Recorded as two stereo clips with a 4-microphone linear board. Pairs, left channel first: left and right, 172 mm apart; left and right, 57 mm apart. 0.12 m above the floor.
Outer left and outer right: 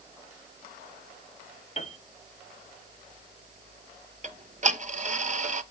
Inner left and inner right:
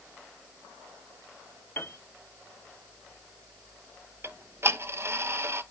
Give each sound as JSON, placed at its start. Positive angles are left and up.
{"t": 1.8, "sound": "a piano", "side_deg": 40, "distance_m": 1.6}
{"t": 4.2, "sound": "ticking", "side_deg": -45, "distance_m": 0.8}